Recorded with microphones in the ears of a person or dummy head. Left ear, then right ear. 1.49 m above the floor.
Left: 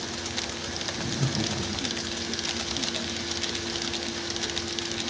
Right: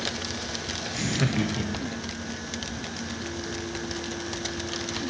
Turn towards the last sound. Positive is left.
turn(degrees=-20)  # may be behind; listen again after turning